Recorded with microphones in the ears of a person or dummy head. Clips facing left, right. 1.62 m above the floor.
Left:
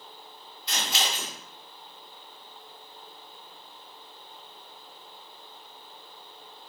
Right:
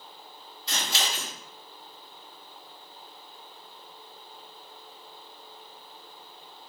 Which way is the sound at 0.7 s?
35° right (ahead or behind).